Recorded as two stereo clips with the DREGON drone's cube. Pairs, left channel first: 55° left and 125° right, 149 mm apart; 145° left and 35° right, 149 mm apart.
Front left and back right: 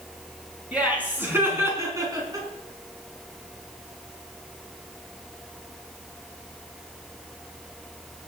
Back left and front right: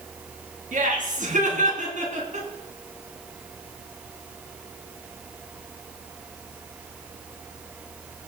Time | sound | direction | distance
0.7 | laughter | 45° right | 3.5 m